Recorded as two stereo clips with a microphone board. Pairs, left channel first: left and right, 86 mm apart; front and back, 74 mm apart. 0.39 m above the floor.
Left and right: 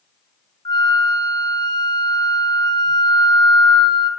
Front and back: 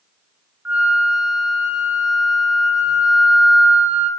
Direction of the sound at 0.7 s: 110° left.